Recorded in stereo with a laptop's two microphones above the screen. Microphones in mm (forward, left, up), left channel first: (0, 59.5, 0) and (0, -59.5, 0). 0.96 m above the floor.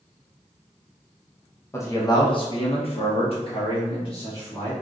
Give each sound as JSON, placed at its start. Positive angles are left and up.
{"t": 1.7, "sound": "a man speaking", "side_deg": 20, "distance_m": 0.9}